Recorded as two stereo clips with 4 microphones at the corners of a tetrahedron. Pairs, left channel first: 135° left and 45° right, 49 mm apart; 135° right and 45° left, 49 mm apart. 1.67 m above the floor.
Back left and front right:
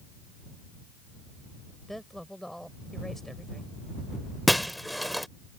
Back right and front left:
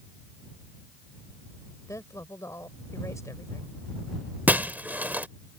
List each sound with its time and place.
1.9 s a woman speaking: 140° right
4.5 s breaking glass: 45° left